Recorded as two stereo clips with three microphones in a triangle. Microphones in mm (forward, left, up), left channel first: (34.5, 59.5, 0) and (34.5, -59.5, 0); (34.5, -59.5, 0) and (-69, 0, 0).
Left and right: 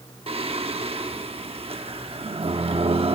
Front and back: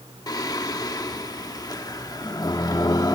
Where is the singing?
80° right, 0.8 m.